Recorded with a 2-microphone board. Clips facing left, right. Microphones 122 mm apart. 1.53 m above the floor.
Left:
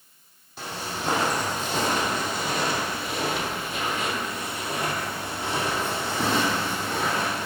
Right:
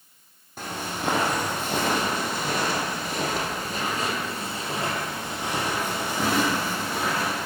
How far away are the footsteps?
About 3 m.